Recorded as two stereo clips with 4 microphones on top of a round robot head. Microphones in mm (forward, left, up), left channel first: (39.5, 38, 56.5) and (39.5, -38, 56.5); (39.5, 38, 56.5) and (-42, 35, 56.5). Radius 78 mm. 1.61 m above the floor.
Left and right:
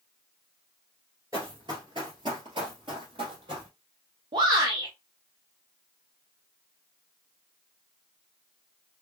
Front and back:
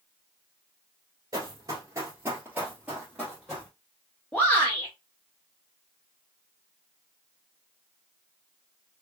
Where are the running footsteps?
140° right, 1.8 m; by 3.7 s 85° right, 2.5 m.